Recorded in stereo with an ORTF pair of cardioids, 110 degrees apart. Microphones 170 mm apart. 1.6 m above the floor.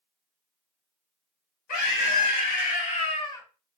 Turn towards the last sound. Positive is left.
turn(degrees=15)